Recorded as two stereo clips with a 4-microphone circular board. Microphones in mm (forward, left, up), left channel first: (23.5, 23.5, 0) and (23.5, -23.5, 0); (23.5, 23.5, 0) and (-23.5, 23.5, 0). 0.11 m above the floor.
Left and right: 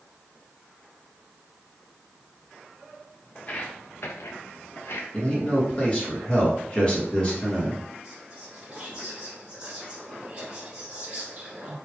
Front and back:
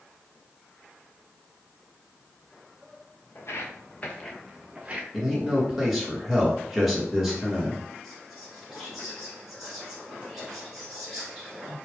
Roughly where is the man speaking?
Left.